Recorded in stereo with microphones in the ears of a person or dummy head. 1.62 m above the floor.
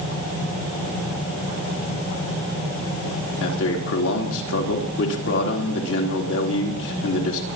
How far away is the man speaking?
About 3.5 m.